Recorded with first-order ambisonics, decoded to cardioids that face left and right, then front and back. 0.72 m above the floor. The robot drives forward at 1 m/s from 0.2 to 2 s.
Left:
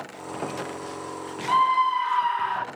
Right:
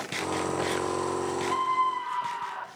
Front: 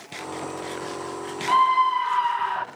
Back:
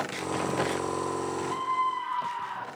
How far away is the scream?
About 1.7 m.